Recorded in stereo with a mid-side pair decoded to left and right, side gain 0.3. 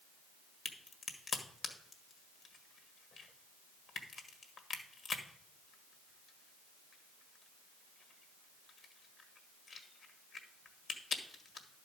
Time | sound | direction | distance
0.7 | a crack | 65° left | 1.6 m